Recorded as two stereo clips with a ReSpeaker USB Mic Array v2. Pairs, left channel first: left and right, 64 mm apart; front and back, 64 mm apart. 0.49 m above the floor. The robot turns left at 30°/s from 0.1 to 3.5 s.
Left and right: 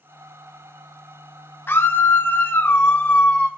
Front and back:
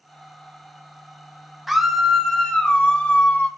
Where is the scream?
95° left, 0.8 m; by 3.5 s 40° left, 0.8 m.